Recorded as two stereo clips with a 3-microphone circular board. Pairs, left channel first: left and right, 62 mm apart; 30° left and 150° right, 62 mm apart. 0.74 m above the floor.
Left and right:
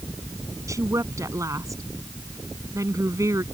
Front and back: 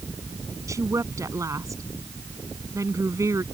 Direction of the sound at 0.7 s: 120° right.